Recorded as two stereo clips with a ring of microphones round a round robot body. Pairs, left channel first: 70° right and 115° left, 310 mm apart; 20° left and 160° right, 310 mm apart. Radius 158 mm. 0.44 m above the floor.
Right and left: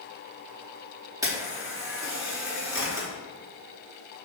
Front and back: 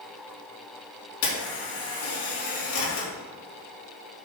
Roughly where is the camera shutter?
Ahead left.